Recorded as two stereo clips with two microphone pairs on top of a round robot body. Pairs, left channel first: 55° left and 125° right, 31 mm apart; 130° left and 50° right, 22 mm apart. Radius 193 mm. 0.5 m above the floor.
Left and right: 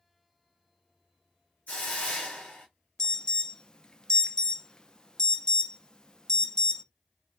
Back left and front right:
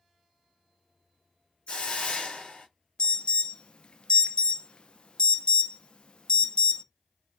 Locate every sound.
1.7 s a hiss: 100° left, 1.9 m
3.0 s an alarm: 115° left, 0.8 m